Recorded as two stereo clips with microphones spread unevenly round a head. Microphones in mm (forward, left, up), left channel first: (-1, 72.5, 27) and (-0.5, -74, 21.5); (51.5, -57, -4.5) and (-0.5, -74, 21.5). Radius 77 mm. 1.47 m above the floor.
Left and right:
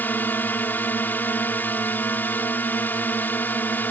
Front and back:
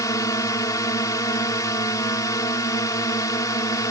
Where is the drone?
10° left.